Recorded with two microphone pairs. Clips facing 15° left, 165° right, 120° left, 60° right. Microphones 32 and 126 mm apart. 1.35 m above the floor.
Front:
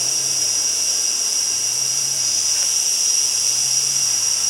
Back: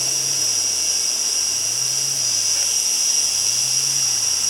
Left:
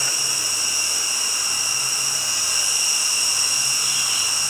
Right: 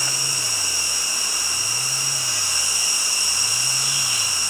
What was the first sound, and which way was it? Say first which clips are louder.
An insect: even, even; 80° right.